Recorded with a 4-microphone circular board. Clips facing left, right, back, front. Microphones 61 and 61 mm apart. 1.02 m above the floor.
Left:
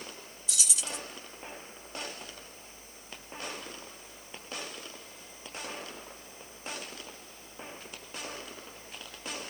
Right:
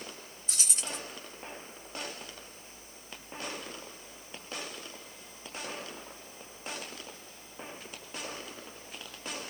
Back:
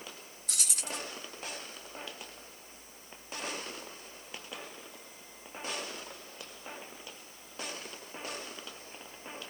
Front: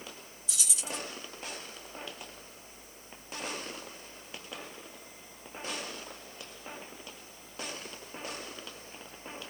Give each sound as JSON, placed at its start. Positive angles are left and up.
{"t": 0.5, "sound": "keys jangling", "azimuth_deg": -145, "distance_m": 0.7}